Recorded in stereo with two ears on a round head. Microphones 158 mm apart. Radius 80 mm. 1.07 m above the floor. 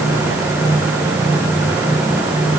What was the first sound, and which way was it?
Only background noise.